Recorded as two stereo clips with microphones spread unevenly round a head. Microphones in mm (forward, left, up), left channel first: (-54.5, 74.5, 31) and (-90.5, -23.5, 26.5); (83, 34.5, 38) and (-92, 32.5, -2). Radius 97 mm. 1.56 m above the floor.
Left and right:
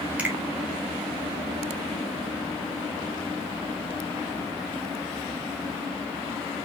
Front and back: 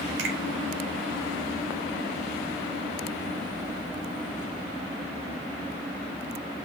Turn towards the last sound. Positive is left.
turn(degrees=170)